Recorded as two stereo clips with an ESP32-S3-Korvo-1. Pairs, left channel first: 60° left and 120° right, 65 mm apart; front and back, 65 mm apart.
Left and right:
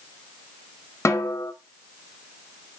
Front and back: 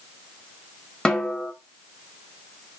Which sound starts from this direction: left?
A snare drum, at 1.1 s.